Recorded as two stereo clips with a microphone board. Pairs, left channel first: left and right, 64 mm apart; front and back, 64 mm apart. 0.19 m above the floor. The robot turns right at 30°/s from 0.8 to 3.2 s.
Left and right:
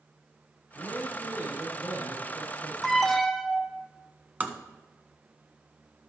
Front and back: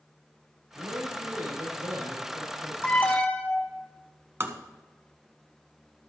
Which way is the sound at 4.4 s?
145° right.